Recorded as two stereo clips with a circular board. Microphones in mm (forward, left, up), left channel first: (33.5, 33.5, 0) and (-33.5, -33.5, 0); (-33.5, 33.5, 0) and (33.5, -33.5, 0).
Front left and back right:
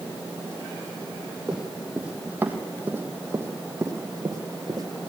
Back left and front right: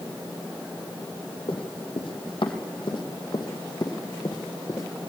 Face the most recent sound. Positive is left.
turn(degrees=180)